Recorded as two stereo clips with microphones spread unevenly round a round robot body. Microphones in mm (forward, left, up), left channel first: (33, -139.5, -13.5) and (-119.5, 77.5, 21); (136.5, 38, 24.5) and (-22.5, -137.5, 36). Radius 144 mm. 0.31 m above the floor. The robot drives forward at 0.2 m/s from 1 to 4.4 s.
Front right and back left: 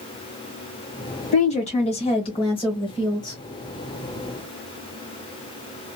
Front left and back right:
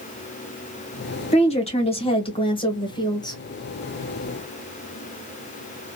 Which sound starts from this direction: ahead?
A woman speaking, at 1.3 s.